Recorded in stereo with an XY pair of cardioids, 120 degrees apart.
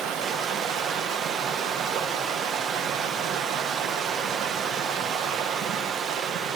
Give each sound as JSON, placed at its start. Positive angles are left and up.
{"t": 0.0, "sound": "running water", "azimuth_deg": -65, "distance_m": 1.0}